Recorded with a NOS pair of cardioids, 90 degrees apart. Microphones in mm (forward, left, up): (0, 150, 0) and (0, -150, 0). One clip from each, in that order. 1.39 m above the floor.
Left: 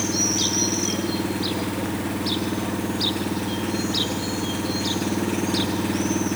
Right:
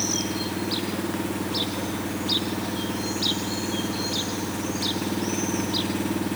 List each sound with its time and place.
0.0 s an engine running: 20° left